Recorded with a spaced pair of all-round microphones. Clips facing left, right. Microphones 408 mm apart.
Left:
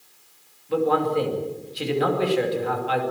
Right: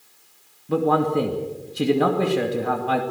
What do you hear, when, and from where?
0.7 s a man speaking: 60° right (ahead or behind), 2.5 m